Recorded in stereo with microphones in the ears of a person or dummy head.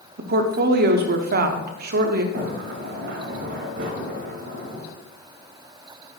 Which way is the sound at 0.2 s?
55° right (ahead or behind).